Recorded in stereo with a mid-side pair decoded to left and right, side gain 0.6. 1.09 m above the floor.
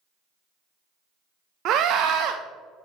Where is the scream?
60° right, 0.5 m.